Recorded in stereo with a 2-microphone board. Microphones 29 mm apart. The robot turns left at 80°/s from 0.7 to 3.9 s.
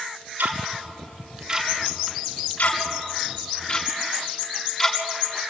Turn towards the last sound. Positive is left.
turn(degrees=10)  # may be behind; listen again after turning